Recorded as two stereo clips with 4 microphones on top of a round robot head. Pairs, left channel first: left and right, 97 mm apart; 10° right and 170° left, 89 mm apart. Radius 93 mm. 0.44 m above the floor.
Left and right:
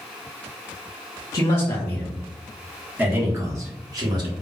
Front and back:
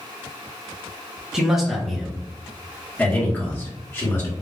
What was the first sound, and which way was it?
A man speaking, 95° left.